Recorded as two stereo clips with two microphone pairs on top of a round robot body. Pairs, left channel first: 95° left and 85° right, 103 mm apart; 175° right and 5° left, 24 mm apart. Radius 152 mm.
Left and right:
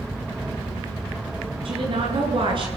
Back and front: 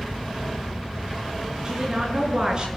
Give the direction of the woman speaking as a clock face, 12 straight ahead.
2 o'clock.